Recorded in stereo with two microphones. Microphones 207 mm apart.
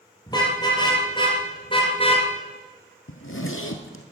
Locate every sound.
0.3 s a car horn: 20° left (ahead or behind), 4.5 m; by 2.3 s 30° left (ahead or behind), 2 m
3.1 s a zipper: 80° left, 1.3 m